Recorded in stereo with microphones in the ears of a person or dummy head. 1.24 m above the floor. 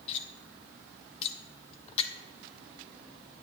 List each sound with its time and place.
0.1 s cutlery clinking: 30° left (ahead or behind), 1.1 m